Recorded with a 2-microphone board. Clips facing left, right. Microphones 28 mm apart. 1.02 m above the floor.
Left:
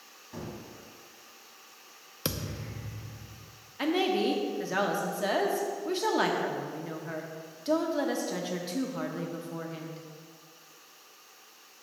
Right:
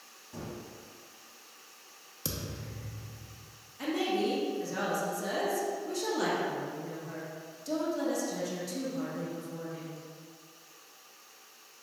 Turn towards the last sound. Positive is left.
turn(degrees=40)  # may be behind; listen again after turning